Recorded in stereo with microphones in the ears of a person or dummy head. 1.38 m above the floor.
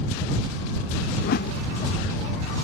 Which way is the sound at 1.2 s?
60° left (ahead or behind).